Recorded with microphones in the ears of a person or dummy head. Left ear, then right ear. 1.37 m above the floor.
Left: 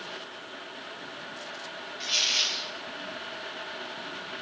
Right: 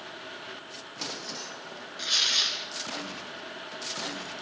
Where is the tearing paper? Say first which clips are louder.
Right 1 dB; 75° right (ahead or behind), 4 m.